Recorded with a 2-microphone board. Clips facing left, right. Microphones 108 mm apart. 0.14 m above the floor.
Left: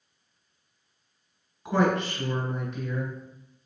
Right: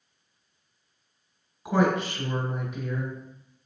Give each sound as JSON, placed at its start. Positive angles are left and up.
{"t": 1.6, "sound": "a woman speaking", "side_deg": -10, "distance_m": 1.6}